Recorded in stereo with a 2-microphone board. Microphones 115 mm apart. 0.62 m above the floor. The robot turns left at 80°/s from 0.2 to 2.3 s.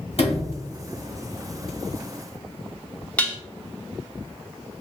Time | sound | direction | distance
0.2 | a sliding door | 60° left (ahead or behind) | 1.5 m
3.2 | dishes clattering | 15° left (ahead or behind) | 0.5 m